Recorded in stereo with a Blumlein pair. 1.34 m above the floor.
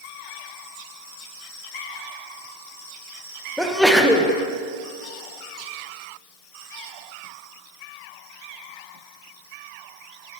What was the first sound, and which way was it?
A sneeze, straight ahead.